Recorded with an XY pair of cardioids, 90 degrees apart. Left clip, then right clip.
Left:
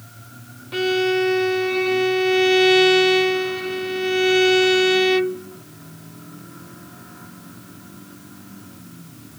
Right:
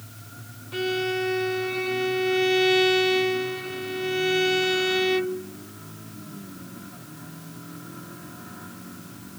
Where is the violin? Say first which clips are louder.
Left 6 dB; 45° left, 0.6 m.